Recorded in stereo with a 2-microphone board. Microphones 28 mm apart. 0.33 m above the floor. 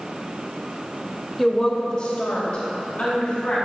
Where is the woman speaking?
5° left (ahead or behind), 1.1 m; by 3.5 s 45° left (ahead or behind), 2.5 m.